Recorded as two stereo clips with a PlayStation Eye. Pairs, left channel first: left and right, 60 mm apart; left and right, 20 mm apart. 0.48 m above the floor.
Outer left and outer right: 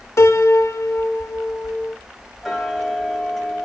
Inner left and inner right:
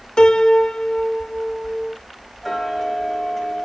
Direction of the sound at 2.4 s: Centre (ahead or behind).